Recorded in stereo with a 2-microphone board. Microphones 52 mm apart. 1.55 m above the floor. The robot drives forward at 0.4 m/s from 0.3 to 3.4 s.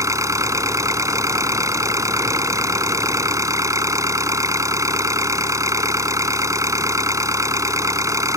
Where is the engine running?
85° right; by 8.4 s 90° right.